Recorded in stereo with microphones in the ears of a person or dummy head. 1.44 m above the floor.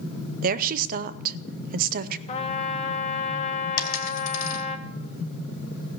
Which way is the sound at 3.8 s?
75° left (ahead or behind).